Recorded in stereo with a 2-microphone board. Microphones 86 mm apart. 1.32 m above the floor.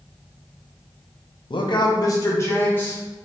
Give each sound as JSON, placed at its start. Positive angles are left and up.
{"t": 1.5, "sound": "a man speaking", "side_deg": 70, "distance_m": 0.6}